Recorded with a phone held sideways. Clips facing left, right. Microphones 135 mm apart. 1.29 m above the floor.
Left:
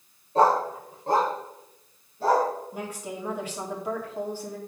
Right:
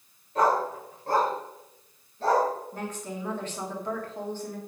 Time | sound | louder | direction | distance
0.3 | a dog barking | left 3 dB | 30° left (ahead or behind) | 1.6 m
2.7 | a woman speaking | even | 10° left (ahead or behind) | 3 m